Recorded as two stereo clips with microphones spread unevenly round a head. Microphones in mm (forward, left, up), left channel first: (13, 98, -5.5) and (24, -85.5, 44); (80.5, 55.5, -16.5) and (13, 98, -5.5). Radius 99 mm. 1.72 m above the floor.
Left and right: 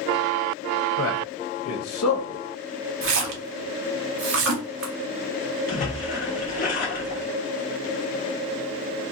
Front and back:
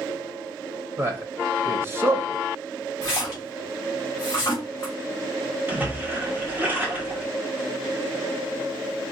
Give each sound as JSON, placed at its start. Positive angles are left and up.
{"t": 1.0, "sound": "a man speaking", "azimuth_deg": 100, "distance_m": 0.7}
{"t": 3.0, "sound": "a splash", "azimuth_deg": -105, "distance_m": 0.8}
{"t": 5.7, "sound": "a splash", "azimuth_deg": 130, "distance_m": 0.9}